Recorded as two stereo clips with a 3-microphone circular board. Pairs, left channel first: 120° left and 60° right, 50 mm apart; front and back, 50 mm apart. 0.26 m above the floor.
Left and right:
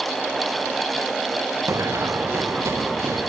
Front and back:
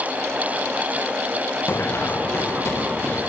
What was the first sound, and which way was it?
Running footsteps, 35° right.